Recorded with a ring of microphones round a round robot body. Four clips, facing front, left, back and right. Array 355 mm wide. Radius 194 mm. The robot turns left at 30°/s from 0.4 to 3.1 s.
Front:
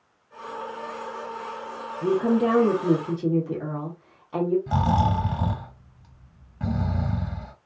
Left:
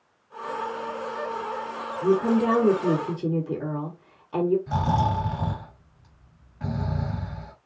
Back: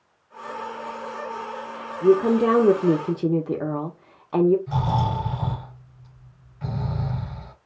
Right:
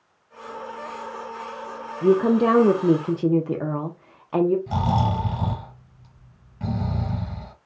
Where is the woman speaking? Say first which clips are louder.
Right 4 dB, back 4 dB; 100° right, 1.4 m; by 4.6 s 135° right, 1.4 m.